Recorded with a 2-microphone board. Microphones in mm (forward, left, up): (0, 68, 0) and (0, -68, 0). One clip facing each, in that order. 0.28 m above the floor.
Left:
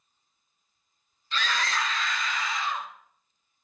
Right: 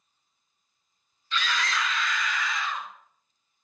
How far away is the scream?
About 1.9 m.